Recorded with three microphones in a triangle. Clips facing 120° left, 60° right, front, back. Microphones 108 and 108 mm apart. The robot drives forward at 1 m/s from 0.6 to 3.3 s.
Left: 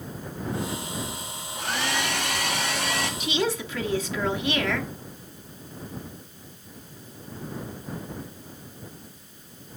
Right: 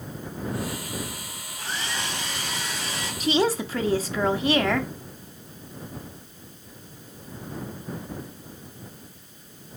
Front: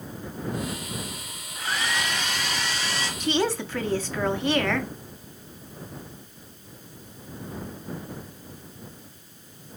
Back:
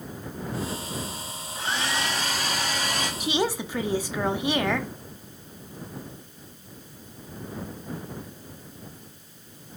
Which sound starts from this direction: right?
A woman speaking, at 3.2 s.